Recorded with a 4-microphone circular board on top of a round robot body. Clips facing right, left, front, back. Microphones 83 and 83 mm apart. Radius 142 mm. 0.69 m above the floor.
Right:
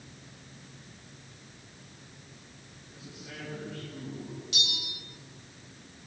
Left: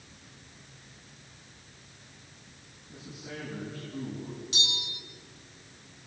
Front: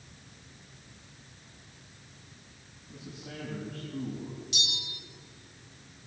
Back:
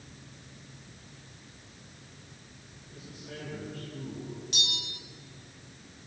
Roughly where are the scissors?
No scissors in this recording.